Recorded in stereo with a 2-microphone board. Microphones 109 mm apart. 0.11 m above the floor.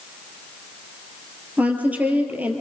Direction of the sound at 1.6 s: 15° right (ahead or behind).